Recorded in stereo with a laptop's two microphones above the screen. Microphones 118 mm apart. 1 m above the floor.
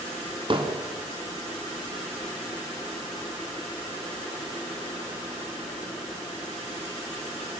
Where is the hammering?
45° right (ahead or behind), 3 m.